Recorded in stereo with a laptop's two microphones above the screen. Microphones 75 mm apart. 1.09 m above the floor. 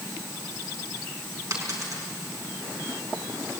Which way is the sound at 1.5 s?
45° right (ahead or behind).